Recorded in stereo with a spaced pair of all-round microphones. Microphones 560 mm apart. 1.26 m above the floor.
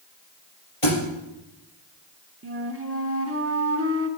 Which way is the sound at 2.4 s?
25° right (ahead or behind).